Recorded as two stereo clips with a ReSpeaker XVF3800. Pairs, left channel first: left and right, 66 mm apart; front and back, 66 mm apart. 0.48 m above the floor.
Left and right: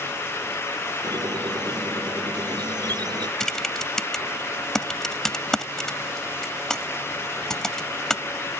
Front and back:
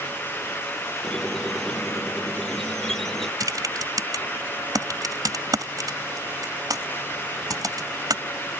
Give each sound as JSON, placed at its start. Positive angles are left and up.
{"t": 1.0, "sound": "a squeak", "azimuth_deg": -85}
{"t": 3.4, "sound": "typing on a keyboard", "azimuth_deg": 170}